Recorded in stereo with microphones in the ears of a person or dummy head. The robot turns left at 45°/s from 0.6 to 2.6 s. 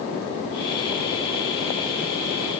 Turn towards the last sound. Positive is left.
No sound to turn to.